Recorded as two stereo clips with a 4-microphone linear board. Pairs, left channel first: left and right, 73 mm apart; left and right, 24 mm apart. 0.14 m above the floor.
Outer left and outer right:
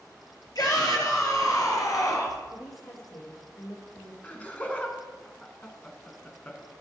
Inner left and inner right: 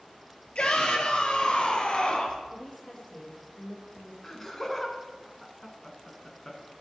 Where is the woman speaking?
70° left (ahead or behind), 4 m.